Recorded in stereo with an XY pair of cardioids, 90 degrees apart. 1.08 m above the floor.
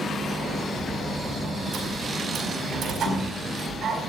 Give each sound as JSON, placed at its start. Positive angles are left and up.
{"t": 0.2, "sound": "a sliding door", "azimuth_deg": -70, "distance_m": 4.5}